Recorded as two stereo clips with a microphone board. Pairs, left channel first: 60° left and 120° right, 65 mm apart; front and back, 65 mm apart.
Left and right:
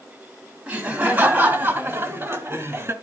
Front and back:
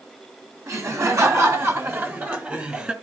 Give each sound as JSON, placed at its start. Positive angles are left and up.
{"t": 0.7, "sound": "laughter", "azimuth_deg": 175, "distance_m": 1.8}